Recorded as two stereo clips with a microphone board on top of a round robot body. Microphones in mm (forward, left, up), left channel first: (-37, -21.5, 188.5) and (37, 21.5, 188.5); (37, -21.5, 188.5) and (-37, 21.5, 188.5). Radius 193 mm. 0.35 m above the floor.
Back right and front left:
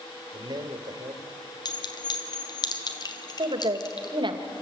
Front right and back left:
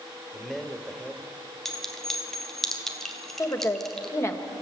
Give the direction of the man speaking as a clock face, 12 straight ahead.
10 o'clock.